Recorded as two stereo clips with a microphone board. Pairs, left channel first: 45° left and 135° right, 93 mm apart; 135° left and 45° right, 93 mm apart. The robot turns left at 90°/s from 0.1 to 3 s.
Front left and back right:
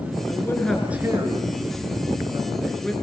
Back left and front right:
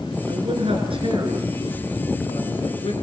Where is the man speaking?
Straight ahead, 5 m; by 2.9 s 120° left, 5 m.